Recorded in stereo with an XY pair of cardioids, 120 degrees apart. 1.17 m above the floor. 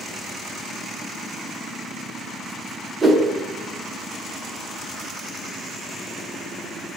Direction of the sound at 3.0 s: 20° right.